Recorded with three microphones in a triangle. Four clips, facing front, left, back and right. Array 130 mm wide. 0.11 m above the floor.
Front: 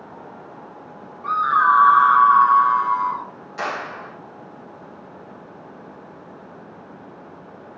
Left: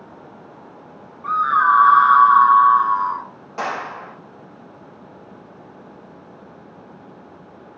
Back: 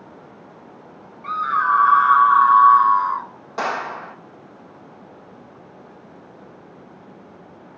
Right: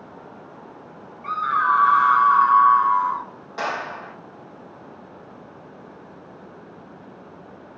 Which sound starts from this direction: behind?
A clap, at 3.6 s.